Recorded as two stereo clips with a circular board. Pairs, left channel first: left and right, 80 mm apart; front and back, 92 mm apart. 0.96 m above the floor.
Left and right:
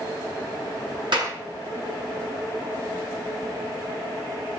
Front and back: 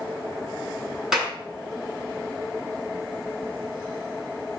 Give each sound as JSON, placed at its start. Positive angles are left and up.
{"t": 1.1, "sound": "a clap", "azimuth_deg": -95, "distance_m": 7.0}